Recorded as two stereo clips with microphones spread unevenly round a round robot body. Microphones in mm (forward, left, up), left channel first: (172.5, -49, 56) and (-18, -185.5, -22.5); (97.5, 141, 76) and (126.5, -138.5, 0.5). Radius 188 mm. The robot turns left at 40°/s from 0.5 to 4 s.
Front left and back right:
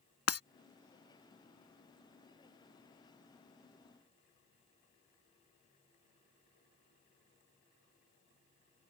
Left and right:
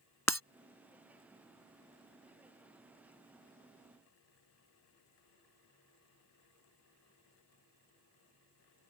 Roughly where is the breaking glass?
Ahead.